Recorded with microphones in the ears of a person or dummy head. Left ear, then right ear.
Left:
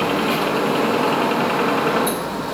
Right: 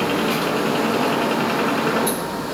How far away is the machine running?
About 1.9 m.